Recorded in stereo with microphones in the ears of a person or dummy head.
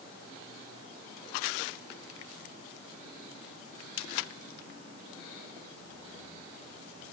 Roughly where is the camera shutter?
I don't hear a camera shutter.